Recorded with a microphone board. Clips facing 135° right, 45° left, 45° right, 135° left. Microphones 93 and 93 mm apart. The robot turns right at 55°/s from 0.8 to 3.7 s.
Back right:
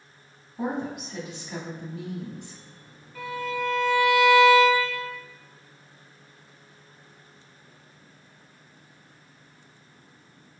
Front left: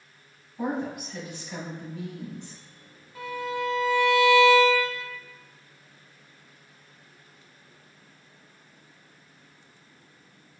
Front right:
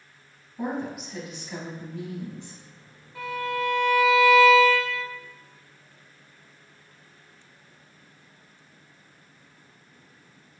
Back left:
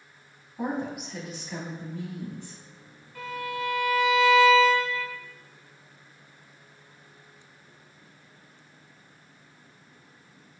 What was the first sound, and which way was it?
A woman speaking, 160° right.